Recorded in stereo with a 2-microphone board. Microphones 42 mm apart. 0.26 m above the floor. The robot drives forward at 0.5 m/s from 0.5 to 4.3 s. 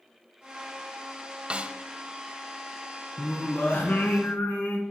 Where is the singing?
50° left (ahead or behind), 2.5 m; by 4.8 s 60° left (ahead or behind), 2 m.